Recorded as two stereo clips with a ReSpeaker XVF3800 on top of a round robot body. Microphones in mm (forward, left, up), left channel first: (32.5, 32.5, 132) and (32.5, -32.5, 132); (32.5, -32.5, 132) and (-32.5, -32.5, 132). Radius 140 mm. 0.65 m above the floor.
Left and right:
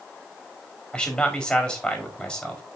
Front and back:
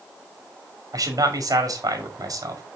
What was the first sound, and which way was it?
A man speaking, 170° left.